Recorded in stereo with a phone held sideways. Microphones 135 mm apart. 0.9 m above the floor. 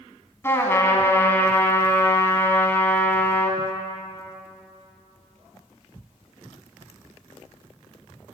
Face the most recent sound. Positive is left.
turn(degrees=20)  # may be behind; listen again after turning